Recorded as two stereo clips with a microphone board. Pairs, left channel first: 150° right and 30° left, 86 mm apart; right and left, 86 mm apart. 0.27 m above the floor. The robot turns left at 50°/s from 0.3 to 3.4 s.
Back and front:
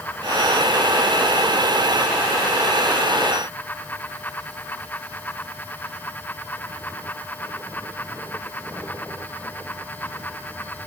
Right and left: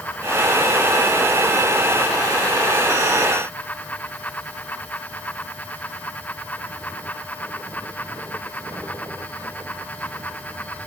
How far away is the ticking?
No ticking in this recording.